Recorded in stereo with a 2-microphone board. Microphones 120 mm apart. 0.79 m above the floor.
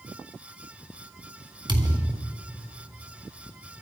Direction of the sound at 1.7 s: 40° right (ahead or behind).